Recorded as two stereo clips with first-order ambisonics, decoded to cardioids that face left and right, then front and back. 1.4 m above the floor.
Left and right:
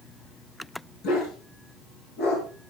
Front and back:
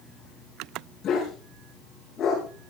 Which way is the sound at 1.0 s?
60° left.